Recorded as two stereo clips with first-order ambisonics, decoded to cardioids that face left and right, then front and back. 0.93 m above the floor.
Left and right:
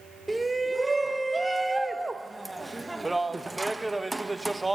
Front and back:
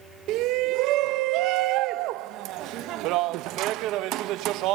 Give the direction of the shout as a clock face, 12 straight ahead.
6 o'clock.